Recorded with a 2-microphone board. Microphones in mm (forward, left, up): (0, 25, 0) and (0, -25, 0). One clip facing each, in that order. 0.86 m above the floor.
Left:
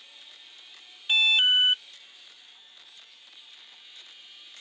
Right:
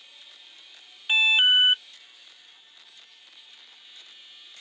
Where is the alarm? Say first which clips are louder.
Right 2 dB; 25° right (ahead or behind).